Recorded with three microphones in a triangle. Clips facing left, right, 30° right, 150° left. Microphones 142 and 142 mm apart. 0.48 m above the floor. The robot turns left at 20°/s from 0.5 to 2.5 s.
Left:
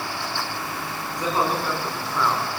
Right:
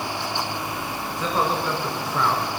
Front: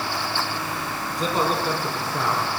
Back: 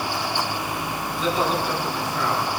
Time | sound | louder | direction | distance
1.2 | a man speaking | even, even | 15° left | 5 m